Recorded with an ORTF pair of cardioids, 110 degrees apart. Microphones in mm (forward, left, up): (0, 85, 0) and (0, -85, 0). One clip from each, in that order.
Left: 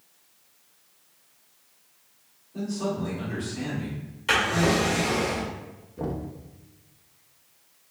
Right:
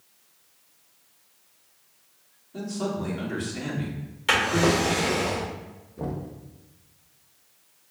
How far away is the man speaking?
About 1.8 m.